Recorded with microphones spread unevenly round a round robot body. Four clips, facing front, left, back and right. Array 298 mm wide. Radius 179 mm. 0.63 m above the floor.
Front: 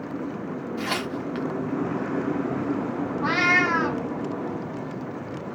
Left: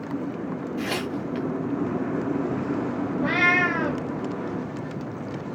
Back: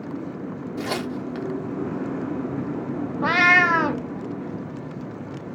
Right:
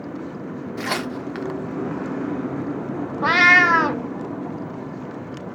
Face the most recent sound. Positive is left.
turn(degrees=-120)